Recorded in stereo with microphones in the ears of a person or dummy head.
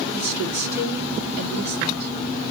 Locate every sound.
0.1 s a woman speaking: 15° right (ahead or behind), 3 m